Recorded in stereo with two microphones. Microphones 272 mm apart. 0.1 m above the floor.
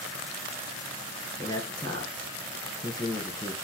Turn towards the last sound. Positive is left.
turn(degrees=15)  # may be behind; listen again after turning